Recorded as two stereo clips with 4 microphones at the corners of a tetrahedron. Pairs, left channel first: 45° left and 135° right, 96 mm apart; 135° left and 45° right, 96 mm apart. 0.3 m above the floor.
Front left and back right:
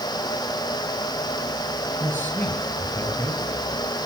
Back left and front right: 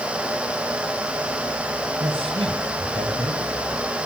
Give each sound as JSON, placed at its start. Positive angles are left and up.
{"t": 2.0, "sound": "a man speaking", "azimuth_deg": -25, "distance_m": 7.0}